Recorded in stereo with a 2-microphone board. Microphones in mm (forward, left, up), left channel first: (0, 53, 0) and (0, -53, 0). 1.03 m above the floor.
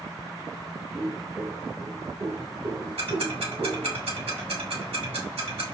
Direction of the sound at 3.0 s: 85° right.